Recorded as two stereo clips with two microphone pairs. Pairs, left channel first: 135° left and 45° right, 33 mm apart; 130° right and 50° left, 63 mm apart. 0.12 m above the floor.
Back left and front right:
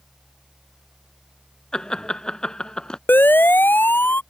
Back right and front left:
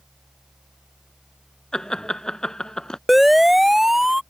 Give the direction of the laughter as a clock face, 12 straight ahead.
7 o'clock.